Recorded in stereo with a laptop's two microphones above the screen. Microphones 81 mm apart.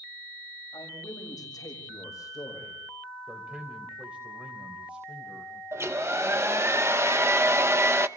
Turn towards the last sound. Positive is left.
turn(degrees=-30)  # may be behind; listen again after turning